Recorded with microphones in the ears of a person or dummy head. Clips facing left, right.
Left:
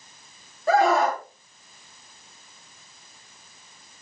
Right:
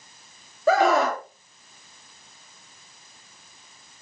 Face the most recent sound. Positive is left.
turn(degrees=-65)  # may be behind; listen again after turning